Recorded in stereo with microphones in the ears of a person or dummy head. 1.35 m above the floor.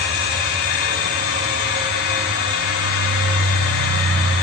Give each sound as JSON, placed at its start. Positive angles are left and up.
{"t": 0.0, "sound": "a machine running", "side_deg": 80, "distance_m": 5.0}